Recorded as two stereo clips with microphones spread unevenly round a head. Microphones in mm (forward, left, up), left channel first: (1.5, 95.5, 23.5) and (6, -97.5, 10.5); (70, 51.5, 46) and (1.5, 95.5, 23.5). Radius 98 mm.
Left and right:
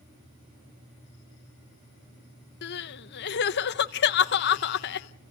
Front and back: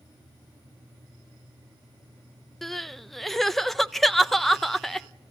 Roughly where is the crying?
Ahead left.